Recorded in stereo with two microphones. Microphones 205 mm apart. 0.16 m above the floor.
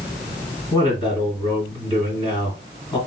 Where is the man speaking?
25° left (ahead or behind), 1.8 m.